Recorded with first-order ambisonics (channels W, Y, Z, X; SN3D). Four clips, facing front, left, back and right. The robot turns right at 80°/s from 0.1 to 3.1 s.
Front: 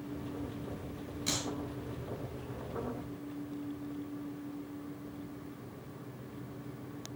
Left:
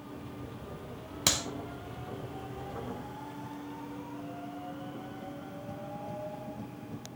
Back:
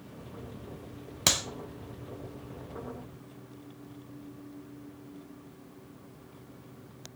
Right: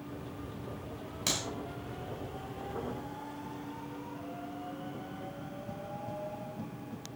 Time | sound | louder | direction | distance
1.3 | a clap | left 4 dB, back 9 dB | 155° left | 1.7 m